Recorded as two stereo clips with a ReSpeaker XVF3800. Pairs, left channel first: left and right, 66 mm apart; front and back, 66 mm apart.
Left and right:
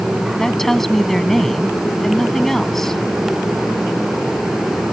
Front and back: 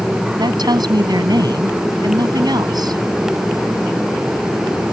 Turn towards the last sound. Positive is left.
turn(degrees=175)